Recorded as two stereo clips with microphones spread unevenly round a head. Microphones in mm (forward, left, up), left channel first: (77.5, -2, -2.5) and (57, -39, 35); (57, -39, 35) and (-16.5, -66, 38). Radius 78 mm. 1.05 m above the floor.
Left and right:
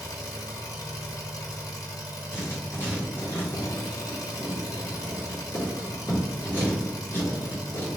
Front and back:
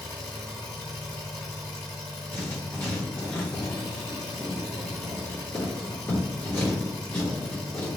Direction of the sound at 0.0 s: 80° left.